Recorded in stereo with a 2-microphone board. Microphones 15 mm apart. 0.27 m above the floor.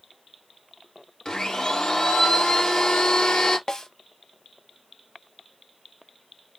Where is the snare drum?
40° left (ahead or behind), 1.0 m.